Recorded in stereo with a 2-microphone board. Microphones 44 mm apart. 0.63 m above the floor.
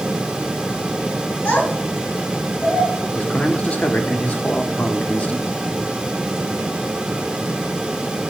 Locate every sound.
1.4 s a child speaking: 40° left (ahead or behind), 3 m; by 2.9 s 35° left (ahead or behind), 4 m
3.1 s a man speaking: 30° left (ahead or behind), 1.0 m